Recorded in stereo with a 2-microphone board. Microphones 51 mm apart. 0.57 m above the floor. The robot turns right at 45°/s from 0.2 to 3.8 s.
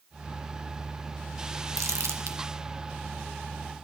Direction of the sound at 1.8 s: 80° right.